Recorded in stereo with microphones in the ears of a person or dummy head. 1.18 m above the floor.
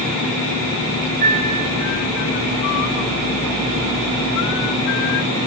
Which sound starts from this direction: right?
A piano, at 1.2 s.